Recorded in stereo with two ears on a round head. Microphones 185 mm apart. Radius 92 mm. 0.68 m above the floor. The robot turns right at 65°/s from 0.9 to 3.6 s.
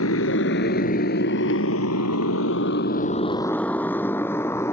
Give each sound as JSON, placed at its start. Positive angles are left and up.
{"t": 0.0, "sound": "a motorcycle", "side_deg": 75}